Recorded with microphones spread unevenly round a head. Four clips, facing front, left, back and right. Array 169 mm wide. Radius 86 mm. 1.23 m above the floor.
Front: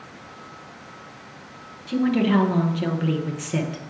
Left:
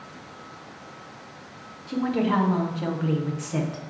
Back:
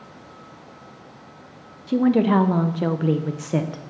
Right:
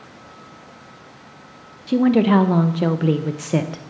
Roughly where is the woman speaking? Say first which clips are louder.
Right 9 dB, back 3 dB; right.